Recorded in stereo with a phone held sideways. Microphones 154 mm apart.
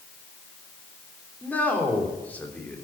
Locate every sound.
1.4 s a man speaking: 10° left (ahead or behind), 3.5 m